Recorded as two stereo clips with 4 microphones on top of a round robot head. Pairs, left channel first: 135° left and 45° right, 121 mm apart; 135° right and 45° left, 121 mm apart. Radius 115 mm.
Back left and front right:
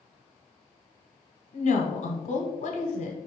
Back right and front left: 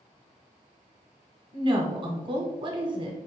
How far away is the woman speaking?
About 1.0 m.